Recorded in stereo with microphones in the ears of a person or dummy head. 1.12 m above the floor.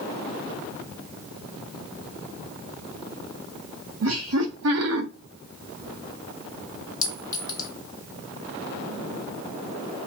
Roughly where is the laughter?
Right.